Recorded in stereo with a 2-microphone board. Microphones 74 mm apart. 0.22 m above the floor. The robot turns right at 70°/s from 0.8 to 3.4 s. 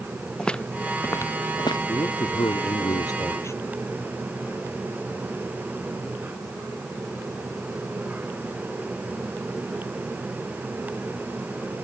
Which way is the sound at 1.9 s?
35° left.